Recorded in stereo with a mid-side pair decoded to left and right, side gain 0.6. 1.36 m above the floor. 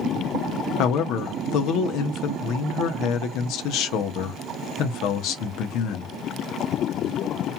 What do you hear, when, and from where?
0.8 s a man speaking: 65° left, 0.7 m